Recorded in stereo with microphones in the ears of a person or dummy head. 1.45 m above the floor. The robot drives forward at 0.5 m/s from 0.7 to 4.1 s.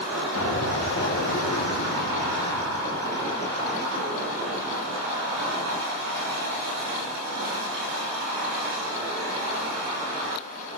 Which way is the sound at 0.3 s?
75° left (ahead or behind).